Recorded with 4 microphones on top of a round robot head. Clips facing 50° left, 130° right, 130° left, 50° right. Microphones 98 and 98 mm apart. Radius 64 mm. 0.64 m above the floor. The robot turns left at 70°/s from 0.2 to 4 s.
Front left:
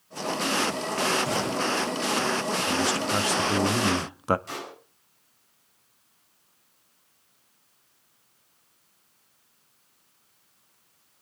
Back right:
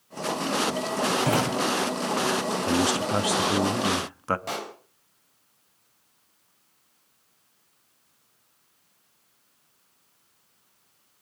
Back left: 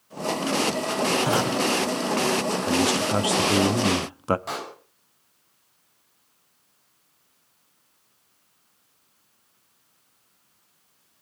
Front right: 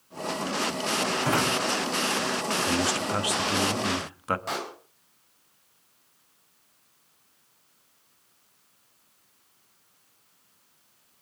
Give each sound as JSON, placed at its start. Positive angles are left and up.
{"t": 1.2, "sound": "a drawer", "azimuth_deg": -150, "distance_m": 2.5}
{"t": 2.7, "sound": "a man speaking", "azimuth_deg": -160, "distance_m": 0.8}
{"t": 4.5, "sound": "a pop", "azimuth_deg": -140, "distance_m": 4.0}